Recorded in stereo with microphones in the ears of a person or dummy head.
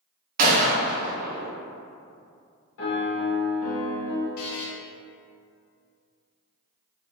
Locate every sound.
0.4 s a gunshot: 50° right (ahead or behind), 0.5 m
2.8 s a piano: 75° left (ahead or behind), 0.9 m
4.4 s a buzzer: 50° left (ahead or behind), 0.8 m